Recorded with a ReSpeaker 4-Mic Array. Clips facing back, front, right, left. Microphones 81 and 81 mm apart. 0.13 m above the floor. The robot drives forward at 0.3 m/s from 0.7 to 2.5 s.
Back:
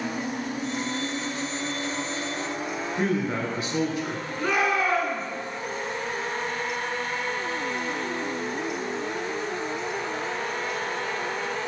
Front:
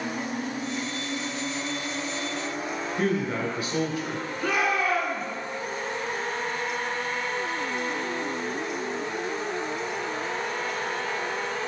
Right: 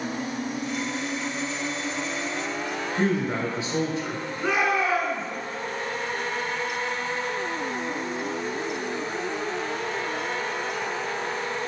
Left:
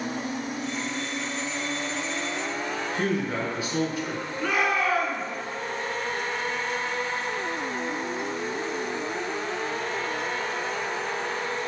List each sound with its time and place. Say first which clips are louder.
3.0 s a man speaking: even, right 3 dB; 135° right, 1.8 m
4.4 s a shout: back 2 dB, right 1 dB; 150° right, 1.7 m